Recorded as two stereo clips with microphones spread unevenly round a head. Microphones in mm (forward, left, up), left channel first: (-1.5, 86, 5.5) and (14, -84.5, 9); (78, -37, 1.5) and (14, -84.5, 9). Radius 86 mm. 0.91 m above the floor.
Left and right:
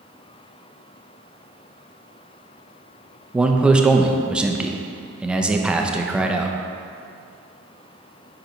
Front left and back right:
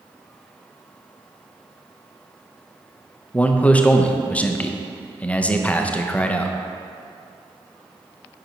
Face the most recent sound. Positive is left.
turn(degrees=-5)